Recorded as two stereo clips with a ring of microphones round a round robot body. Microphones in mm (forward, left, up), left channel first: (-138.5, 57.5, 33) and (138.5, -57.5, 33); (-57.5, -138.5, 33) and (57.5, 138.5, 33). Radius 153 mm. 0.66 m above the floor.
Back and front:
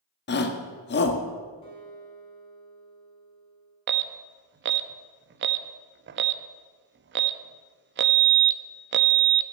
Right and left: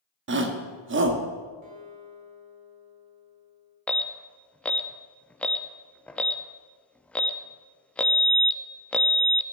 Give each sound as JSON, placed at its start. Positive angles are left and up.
{"t": 0.3, "sound": "a shout", "azimuth_deg": 110, "distance_m": 1.2}
{"t": 1.6, "sound": "a guitar", "azimuth_deg": 85, "distance_m": 3.0}
{"t": 3.9, "sound": "an alarm", "azimuth_deg": -30, "distance_m": 0.5}